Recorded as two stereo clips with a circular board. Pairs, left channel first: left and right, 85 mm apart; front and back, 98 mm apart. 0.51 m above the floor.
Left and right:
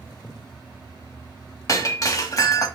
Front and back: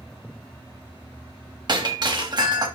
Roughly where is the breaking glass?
Behind left.